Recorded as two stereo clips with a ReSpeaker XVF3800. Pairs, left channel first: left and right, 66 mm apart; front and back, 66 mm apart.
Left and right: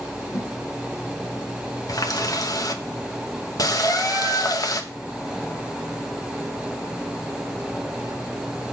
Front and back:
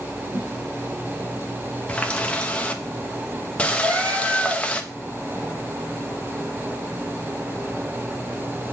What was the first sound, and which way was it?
A whoosh, 140° left.